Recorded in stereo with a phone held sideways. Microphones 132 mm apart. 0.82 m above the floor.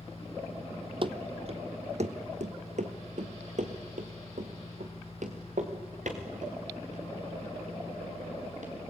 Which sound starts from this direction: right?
Running footsteps, at 1.0 s.